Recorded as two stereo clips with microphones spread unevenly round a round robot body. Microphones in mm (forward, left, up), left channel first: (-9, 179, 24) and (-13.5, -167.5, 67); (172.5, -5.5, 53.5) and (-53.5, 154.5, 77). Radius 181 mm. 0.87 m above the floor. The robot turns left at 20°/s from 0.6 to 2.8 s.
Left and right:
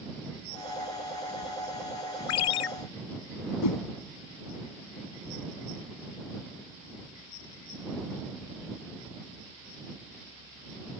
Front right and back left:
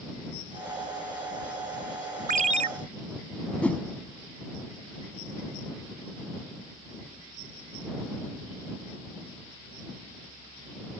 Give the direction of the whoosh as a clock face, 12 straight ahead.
10 o'clock.